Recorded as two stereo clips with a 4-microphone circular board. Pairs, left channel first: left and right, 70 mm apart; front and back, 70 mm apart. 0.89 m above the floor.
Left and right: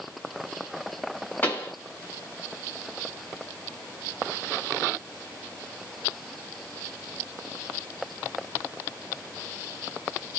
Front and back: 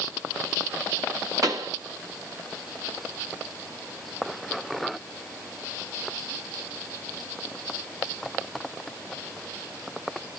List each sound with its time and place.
1.4 s a pop: 150° left, 1.7 m